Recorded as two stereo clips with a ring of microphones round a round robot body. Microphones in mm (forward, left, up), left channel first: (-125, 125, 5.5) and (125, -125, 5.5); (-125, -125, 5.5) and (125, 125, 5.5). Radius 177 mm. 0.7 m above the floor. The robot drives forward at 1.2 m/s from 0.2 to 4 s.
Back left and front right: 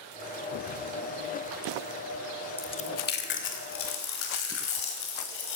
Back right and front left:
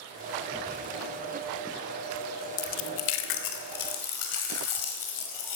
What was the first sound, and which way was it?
Chewing, 140° right.